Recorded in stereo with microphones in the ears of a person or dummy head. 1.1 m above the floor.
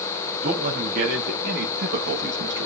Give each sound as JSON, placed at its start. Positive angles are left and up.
{"t": 0.4, "sound": "a man speaking", "side_deg": -40, "distance_m": 1.8}